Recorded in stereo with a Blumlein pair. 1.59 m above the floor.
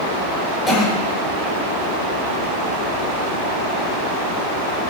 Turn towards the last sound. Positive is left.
turn(degrees=20)